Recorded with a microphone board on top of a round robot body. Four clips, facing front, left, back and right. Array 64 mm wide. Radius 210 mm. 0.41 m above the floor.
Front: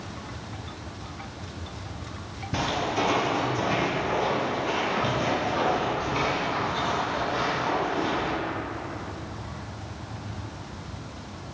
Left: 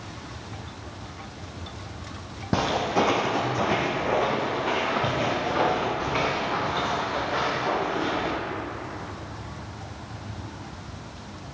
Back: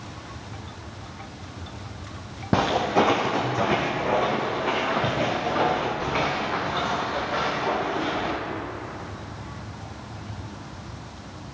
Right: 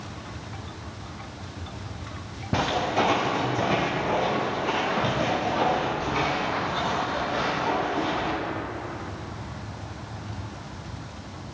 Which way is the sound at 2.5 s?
165° left.